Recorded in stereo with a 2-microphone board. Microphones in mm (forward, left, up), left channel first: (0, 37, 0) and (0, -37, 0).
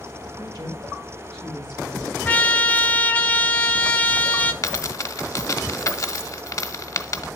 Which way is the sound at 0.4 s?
80° right.